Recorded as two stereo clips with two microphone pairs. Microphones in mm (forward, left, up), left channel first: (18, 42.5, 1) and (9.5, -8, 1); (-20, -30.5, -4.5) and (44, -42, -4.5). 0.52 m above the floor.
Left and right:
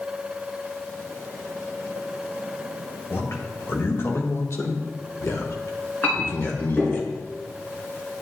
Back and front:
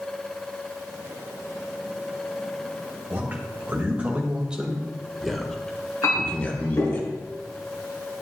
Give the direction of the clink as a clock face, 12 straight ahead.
7 o'clock.